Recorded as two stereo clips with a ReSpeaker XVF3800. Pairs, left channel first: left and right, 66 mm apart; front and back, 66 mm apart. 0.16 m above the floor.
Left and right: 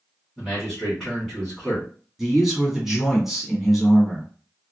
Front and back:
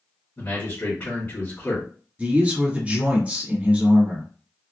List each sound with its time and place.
0.4 s a man speaking: 10° left, 1.8 m
2.2 s a man speaking: 170° right, 1.2 m